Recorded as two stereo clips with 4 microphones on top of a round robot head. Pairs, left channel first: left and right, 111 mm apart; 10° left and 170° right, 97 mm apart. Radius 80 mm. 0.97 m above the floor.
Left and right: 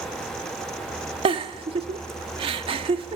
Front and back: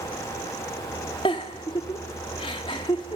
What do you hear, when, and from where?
1.2 s a giggle: 50° right, 0.8 m